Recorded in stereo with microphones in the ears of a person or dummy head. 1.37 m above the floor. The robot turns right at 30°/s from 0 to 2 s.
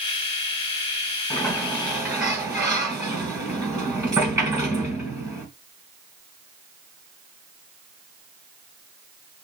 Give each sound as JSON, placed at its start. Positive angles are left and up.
{"t": 1.3, "sound": "a sliding door", "side_deg": 10, "distance_m": 2.5}